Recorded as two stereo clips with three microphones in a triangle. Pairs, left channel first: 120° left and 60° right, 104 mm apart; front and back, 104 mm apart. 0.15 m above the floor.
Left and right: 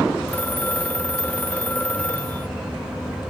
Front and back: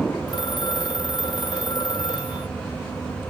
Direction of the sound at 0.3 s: 45° left.